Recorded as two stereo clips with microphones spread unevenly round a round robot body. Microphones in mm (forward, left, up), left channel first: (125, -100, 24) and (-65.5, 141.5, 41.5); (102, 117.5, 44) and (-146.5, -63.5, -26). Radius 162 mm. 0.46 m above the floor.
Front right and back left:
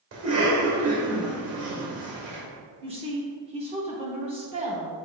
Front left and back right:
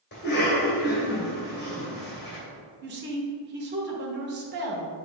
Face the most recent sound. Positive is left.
turn(degrees=-165)